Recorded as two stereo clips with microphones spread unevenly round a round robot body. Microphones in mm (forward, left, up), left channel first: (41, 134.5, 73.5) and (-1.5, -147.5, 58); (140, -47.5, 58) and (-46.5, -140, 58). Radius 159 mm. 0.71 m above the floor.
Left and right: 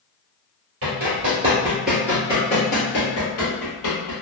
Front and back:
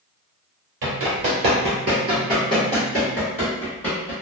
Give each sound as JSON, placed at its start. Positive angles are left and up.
{"t": 0.8, "sound": "running footsteps", "azimuth_deg": -150, "distance_m": 1.1}